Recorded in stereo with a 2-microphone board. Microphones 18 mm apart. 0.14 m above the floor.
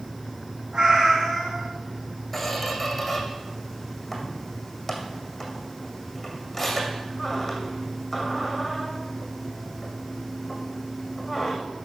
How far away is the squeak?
About 2 m.